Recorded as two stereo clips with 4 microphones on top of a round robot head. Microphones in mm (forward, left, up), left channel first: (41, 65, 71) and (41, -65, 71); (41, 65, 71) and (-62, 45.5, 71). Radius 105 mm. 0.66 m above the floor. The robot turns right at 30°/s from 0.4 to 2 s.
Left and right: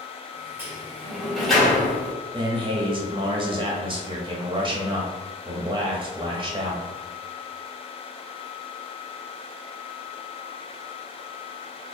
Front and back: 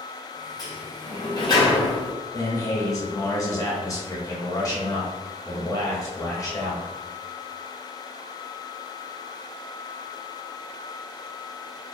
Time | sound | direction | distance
0.6 | a sliding door | 25° right | 1.5 m
2.3 | a man speaking | 40° right | 1.0 m